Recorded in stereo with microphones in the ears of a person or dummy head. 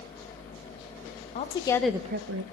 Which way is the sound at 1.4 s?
40° left (ahead or behind).